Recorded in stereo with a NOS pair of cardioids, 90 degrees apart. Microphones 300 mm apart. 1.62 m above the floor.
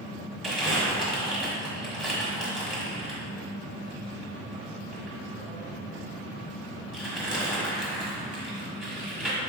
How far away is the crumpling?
About 1.5 m.